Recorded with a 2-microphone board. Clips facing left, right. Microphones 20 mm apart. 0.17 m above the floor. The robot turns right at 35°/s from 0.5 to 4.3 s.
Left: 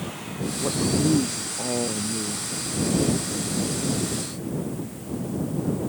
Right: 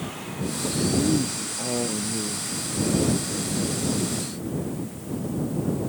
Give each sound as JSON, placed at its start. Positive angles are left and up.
{"t": 0.6, "sound": "a man speaking", "azimuth_deg": 130}